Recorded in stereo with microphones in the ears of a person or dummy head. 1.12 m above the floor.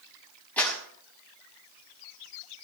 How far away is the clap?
About 6 m.